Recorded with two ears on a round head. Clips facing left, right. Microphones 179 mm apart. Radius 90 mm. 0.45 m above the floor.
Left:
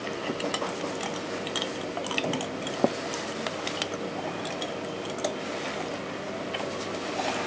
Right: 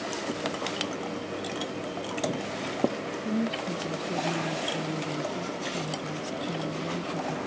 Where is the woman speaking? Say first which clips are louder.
Right 4 dB; 60° right (ahead or behind); by 7.4 s 85° right.